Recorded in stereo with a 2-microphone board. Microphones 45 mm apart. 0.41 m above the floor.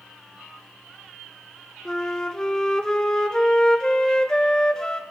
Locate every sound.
1.9 s a flute: 15° left (ahead or behind), 0.6 m